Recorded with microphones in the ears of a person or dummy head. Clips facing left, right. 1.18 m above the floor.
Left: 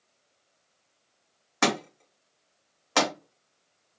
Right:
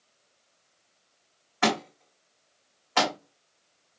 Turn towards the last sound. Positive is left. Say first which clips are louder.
# right 1 dB
turn(degrees=75)  # may be behind; listen again after turning